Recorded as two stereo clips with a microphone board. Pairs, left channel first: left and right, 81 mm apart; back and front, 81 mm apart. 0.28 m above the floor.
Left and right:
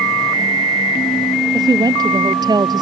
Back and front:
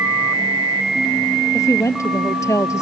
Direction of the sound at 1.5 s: 125° right.